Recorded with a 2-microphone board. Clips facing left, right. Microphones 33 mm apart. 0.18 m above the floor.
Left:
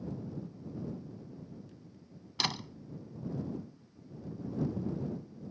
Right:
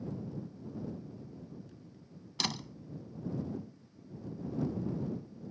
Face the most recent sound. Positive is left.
turn(degrees=15)  # may be behind; listen again after turning